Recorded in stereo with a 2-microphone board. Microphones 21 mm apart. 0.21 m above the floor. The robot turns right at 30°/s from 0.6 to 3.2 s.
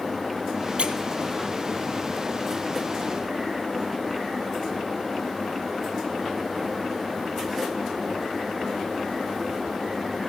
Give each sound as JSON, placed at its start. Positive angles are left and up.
{"t": 0.8, "sound": "a squeak", "side_deg": -70, "distance_m": 0.8}